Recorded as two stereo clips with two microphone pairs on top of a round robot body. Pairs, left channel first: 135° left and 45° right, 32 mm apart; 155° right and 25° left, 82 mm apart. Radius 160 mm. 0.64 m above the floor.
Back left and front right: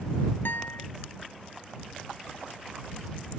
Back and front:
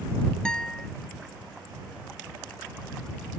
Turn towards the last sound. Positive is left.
turn(degrees=125)